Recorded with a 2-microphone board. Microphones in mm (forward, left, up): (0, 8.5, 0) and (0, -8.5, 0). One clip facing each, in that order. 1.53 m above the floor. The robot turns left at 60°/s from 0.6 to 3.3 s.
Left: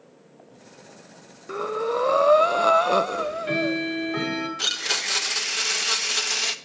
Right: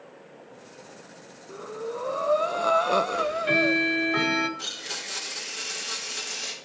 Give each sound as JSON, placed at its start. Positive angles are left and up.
{"t": 1.5, "sound": "breathing", "azimuth_deg": 100, "distance_m": 0.7}
{"t": 3.1, "sound": "ticking", "side_deg": -25, "distance_m": 1.8}
{"t": 4.6, "sound": "a blender", "side_deg": 35, "distance_m": 1.0}